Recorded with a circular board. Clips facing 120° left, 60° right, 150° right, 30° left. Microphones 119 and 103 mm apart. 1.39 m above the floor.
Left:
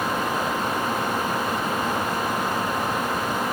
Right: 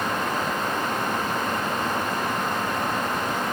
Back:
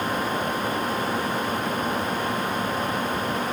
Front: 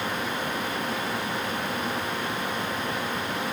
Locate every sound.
Only background noise.